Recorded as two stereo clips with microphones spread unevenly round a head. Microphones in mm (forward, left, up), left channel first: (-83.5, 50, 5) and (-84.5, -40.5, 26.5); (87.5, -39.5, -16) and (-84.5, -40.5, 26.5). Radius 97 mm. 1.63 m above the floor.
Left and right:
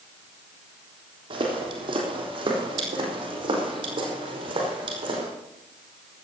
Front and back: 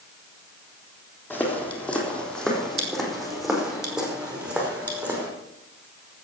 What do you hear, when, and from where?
1.3 s footsteps: 85° right, 4 m; by 5.3 s 105° right, 5.5 m